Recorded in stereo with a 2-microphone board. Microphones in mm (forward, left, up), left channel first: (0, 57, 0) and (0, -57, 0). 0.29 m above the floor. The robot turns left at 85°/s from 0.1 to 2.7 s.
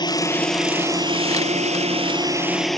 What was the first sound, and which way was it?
A drone, 40° left.